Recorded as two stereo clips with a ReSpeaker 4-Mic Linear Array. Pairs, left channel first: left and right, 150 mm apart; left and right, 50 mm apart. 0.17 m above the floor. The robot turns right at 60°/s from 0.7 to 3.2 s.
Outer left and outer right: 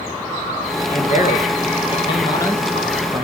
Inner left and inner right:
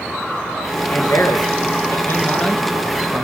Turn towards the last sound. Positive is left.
turn(degrees=-155)